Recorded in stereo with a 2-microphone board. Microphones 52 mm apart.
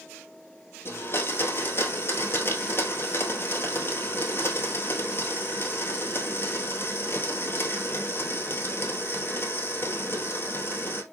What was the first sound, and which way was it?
A blender, 45° left (ahead or behind).